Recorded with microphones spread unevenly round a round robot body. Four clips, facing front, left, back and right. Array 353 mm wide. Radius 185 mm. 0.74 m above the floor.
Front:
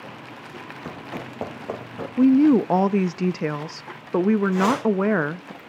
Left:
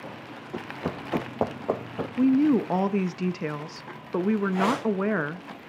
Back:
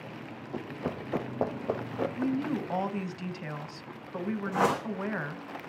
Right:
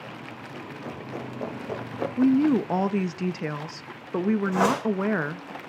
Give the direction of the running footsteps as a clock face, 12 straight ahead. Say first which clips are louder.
Left 6 dB, back 3 dB; 8 o'clock.